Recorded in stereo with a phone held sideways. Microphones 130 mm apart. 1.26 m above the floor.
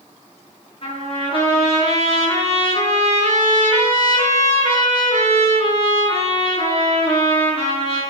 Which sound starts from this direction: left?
A trumpet, at 0.8 s.